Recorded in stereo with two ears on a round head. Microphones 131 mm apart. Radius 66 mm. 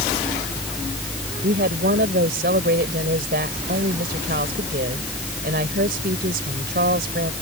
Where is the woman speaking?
70° right (ahead or behind).